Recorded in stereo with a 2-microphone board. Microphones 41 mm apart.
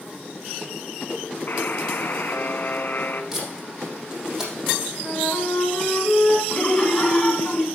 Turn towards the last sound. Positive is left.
turn(degrees=15)  # may be behind; listen again after turning